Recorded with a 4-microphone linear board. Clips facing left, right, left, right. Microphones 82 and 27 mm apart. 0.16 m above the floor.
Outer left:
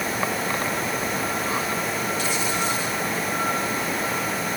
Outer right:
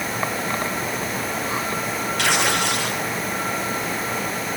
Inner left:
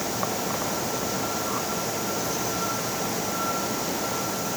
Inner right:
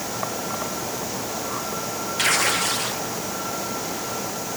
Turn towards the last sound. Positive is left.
turn(degrees=-70)  # may be behind; listen again after turning